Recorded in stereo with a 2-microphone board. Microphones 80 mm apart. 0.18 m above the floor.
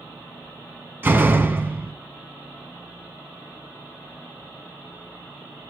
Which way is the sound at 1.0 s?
25° right (ahead or behind).